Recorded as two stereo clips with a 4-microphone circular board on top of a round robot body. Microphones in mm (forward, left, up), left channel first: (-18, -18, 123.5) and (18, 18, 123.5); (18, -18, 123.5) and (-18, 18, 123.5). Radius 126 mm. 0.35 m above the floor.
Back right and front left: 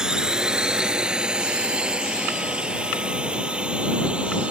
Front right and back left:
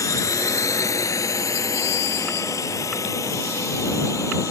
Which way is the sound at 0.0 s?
30° right.